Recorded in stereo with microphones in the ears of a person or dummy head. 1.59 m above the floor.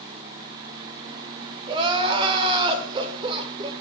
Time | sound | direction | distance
1.7 | crying | 30° right (ahead or behind) | 0.7 m